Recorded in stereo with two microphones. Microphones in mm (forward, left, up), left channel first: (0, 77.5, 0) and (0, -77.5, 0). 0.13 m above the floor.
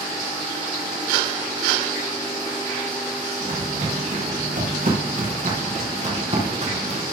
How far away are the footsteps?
About 5.5 m.